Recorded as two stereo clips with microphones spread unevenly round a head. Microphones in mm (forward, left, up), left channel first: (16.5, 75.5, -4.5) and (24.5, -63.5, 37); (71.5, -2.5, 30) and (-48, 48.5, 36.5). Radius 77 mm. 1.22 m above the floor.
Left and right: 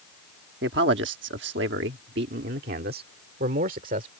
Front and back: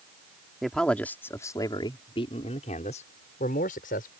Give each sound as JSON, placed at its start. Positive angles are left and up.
{"t": 0.6, "sound": "a man speaking", "azimuth_deg": -115}